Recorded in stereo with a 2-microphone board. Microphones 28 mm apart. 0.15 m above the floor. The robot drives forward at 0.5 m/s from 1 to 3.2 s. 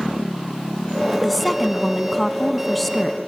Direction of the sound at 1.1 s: 5° left (ahead or behind).